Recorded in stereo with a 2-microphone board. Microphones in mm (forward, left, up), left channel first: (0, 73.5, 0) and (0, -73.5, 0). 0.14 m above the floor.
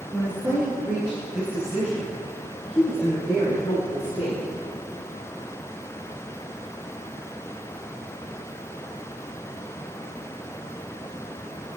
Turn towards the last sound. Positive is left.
turn(degrees=0)  # may be behind; listen again after turning